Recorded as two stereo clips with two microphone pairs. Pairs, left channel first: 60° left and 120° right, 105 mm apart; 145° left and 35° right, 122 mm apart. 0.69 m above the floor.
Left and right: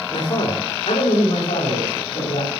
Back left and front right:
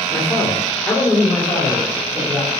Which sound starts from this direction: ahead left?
A man speaking, at 0.1 s.